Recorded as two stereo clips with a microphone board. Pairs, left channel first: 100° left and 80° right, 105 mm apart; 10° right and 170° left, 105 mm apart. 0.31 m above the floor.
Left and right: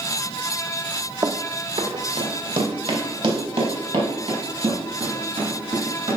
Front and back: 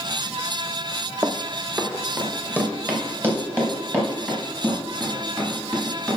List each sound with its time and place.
1.2 s running footsteps: 130° right, 0.9 m; by 6.2 s 120° right, 7.5 m